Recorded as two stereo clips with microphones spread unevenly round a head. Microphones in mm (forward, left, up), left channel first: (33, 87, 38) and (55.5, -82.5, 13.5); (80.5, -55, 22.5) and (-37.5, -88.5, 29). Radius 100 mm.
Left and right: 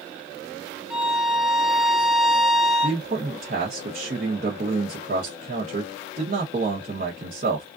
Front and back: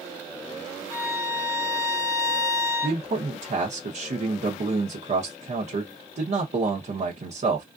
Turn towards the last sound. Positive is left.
turn(degrees=-135)